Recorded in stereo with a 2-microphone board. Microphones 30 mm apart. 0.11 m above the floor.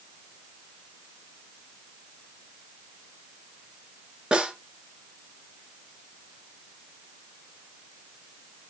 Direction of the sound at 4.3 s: 30° right (ahead or behind).